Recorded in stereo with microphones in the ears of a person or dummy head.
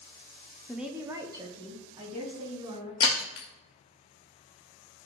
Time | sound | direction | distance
0.7 | a woman speaking | centre (ahead or behind) | 0.5 m
3.0 | breaking glass | 25° left (ahead or behind) | 1.0 m